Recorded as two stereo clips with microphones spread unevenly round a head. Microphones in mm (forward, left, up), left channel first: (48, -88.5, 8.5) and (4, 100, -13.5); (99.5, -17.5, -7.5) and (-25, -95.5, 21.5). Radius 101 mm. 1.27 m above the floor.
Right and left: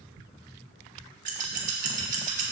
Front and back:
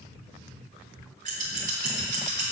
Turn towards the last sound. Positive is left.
turn(degrees=160)